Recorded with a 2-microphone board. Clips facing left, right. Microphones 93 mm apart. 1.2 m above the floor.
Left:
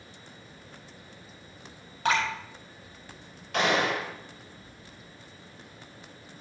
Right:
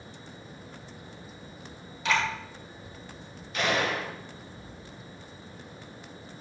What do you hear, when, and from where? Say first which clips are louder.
2.0 s dripping: left 1 dB; 50° left (ahead or behind), 5 m
3.5 s a gunshot: left 2 dB; 80° left, 4 m